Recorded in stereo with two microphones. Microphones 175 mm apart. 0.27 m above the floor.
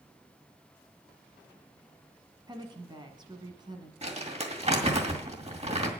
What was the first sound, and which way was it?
A woman speaking, 25° right (ahead or behind).